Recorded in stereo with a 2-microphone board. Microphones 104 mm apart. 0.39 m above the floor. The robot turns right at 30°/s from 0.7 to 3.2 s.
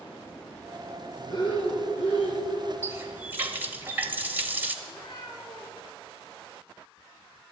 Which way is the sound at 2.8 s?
30° right (ahead or behind).